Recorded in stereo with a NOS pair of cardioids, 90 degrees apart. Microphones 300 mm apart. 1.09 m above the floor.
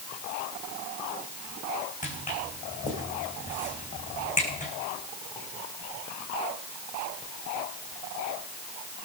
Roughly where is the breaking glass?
I don't hear breaking glass.